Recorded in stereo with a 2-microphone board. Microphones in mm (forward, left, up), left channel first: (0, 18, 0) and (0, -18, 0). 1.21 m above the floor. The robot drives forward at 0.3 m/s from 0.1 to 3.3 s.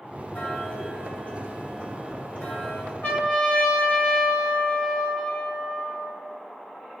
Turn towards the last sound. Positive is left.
turn(degrees=65)  # may be behind; listen again after turning